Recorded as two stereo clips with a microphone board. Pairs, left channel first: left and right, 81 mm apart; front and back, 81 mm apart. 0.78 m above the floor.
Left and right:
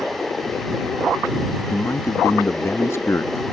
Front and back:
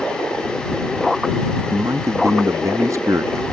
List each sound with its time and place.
1.7 s a man speaking: 140° left